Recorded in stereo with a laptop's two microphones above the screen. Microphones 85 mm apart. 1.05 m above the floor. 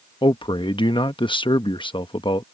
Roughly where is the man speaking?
Left.